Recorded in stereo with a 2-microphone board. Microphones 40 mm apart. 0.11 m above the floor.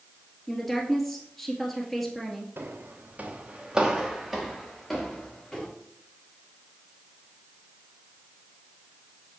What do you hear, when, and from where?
0.5 s a woman speaking: 5° left (ahead or behind), 1.8 m
2.6 s footsteps: 65° right (ahead or behind), 1.5 m; by 5.7 s 20° left (ahead or behind), 3 m